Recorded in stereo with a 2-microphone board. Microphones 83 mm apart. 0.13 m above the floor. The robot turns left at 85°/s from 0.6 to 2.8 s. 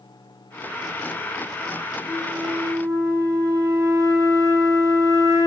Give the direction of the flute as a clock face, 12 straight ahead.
12 o'clock.